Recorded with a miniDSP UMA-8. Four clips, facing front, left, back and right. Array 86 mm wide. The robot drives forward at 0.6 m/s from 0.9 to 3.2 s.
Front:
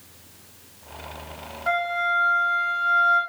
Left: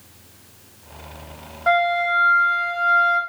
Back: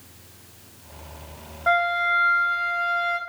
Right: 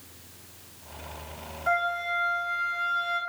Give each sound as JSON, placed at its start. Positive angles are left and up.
{"t": 1.7, "sound": "a flute", "azimuth_deg": 105, "distance_m": 0.8}